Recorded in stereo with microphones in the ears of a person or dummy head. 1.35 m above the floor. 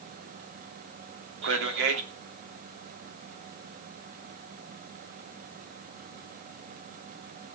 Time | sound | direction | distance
1.4 | a man speaking | 60° right (ahead or behind) | 2.5 m